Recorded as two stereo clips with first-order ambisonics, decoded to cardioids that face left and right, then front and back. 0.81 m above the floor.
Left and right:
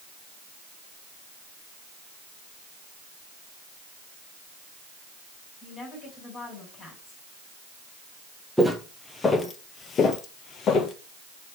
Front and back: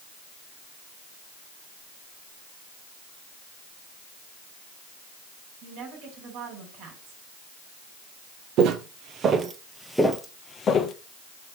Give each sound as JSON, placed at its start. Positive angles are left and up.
{"t": 5.6, "sound": "a woman speaking", "azimuth_deg": 150, "distance_m": 5.5}
{"t": 8.6, "sound": "footsteps", "azimuth_deg": 175, "distance_m": 1.1}